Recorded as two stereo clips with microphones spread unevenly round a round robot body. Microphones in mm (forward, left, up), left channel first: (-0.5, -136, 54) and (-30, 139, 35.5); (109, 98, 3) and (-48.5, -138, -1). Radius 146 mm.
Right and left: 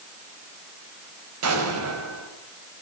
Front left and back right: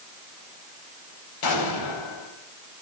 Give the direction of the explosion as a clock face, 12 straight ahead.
10 o'clock.